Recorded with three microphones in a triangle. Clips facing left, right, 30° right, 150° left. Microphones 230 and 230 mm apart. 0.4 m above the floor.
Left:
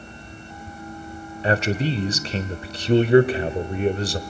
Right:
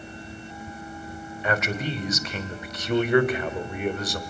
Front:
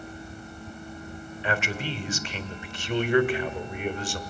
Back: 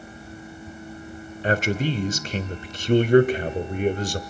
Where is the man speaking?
130° left, 1.2 m.